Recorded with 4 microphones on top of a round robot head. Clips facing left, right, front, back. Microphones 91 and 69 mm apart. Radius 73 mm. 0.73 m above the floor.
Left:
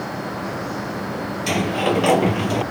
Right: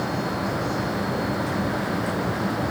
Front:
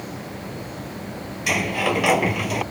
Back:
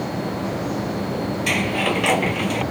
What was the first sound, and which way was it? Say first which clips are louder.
A sliding door: left 5 dB, front 1 dB; 80° left.